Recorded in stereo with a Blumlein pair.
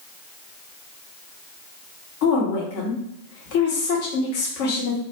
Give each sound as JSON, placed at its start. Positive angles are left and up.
{"t": 2.2, "sound": "a woman speaking", "azimuth_deg": 50, "distance_m": 1.1}